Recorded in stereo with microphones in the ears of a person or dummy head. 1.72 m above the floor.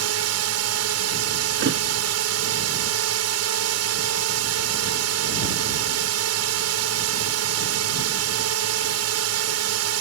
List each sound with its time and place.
0.0 s a drone: 80° right
1.6 s a thud: 65° right (ahead or behind)